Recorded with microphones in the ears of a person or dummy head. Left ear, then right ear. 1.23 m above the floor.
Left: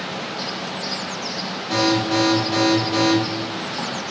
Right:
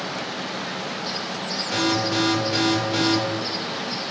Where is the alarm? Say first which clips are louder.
Left 4 dB; 55° left (ahead or behind), 1.7 m.